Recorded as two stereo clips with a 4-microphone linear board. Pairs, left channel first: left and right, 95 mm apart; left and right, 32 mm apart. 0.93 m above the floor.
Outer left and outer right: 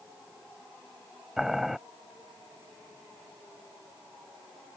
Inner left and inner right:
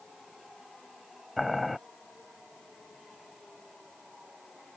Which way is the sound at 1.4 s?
5° right (ahead or behind).